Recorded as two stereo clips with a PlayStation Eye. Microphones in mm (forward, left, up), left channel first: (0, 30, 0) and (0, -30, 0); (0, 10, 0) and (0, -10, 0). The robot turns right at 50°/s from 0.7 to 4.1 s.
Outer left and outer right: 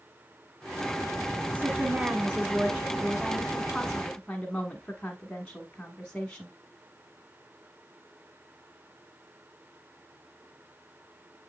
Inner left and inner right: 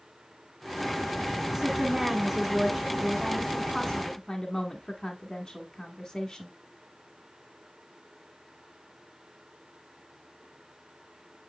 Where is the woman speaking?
95° right, 1.3 m; by 6.5 s 35° left, 1.3 m.